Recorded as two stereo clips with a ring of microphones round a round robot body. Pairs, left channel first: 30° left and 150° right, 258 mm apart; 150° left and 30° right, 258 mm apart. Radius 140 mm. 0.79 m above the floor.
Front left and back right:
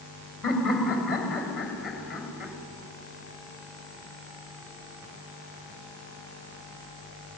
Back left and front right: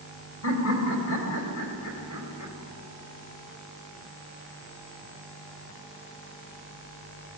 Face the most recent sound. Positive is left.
turn(degrees=120)